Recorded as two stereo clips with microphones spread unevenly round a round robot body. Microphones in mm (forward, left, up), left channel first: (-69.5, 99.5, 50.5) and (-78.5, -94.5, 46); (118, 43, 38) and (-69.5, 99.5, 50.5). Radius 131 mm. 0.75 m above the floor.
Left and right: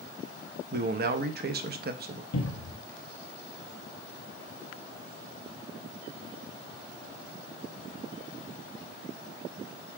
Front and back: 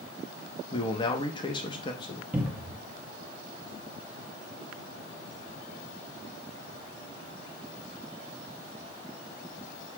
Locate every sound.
0.7 s a man speaking: 75° right, 0.6 m
2.3 s a cupboard door: 80° left, 1.0 m